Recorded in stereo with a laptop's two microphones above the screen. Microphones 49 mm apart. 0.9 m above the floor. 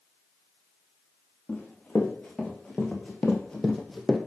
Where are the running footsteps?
20° left (ahead or behind), 4.5 m; by 4.2 s 5° right (ahead or behind), 1.8 m.